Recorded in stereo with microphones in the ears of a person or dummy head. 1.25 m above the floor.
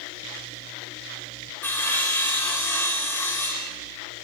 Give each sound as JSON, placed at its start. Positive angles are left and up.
{"t": 1.6, "sound": "sawing", "side_deg": 10, "distance_m": 4.0}